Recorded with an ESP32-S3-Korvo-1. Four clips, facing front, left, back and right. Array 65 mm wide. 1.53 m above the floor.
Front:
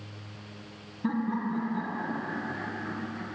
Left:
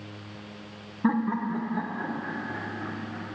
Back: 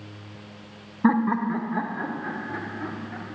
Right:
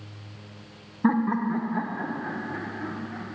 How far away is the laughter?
About 0.6 m.